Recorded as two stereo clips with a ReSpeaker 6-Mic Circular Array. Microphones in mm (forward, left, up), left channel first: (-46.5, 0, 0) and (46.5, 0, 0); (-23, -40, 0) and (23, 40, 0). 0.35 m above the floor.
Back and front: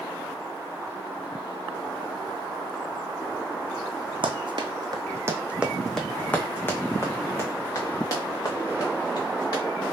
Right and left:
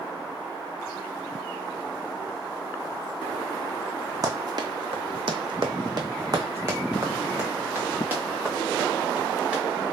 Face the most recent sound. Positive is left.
turn(degrees=135)